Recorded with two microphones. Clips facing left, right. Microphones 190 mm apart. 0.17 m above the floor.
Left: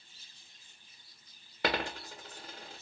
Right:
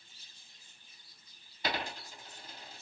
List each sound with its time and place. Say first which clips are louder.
1.6 s a dropped coin: left 4 dB; 85° left, 1.2 m